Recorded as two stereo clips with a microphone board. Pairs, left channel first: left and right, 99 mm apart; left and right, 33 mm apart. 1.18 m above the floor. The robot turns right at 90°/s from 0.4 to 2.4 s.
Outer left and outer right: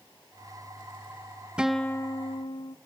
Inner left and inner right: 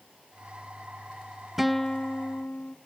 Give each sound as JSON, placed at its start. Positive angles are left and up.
{"t": 1.6, "sound": "a guitar", "azimuth_deg": -10, "distance_m": 0.7}